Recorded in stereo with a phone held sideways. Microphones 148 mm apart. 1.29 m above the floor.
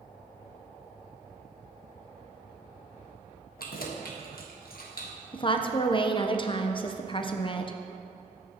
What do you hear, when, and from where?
3.6 s keys jangling: 80° left, 1.1 m
5.3 s a woman speaking: 35° left (ahead or behind), 0.6 m